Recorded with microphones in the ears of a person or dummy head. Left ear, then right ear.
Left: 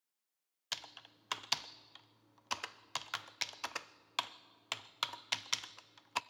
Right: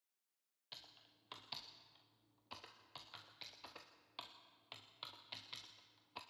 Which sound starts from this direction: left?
Typing on a keyboard, at 0.7 s.